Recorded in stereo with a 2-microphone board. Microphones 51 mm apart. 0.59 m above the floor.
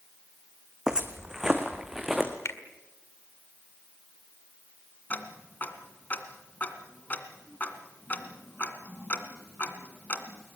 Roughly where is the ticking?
Left.